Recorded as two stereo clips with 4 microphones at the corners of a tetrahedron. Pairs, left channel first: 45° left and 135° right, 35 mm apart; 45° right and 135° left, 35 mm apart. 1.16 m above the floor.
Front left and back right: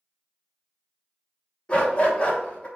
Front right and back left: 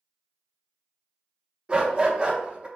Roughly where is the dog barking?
Left.